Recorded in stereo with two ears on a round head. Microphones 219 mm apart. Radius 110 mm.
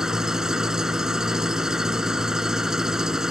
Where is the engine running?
Centre (ahead or behind).